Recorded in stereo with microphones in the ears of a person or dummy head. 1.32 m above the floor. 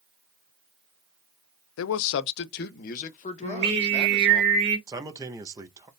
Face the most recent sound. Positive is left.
turn(degrees=-20)  # may be behind; listen again after turning